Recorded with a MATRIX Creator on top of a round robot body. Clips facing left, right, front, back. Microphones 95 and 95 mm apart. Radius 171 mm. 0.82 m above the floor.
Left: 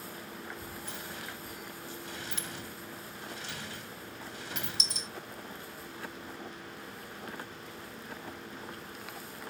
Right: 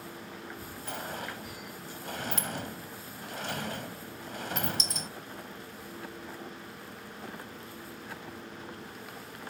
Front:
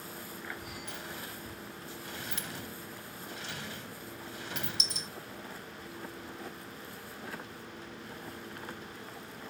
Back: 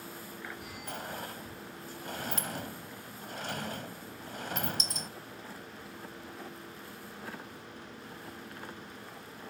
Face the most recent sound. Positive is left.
turn(degrees=-135)